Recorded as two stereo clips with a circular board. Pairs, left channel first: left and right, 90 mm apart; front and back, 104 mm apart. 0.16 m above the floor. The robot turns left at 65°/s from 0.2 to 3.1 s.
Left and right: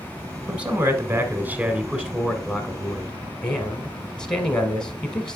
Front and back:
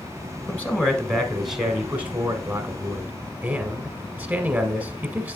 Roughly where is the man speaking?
Ahead right.